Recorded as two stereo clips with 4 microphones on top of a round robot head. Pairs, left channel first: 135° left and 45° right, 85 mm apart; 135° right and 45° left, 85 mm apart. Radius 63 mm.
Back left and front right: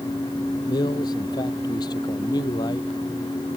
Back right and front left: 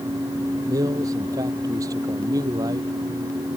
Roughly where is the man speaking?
Left.